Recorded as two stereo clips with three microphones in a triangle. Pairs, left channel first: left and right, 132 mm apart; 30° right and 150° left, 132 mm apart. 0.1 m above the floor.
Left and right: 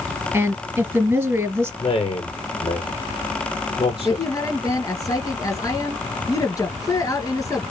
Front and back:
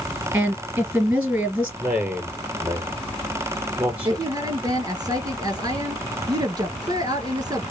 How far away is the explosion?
I don't hear an explosion.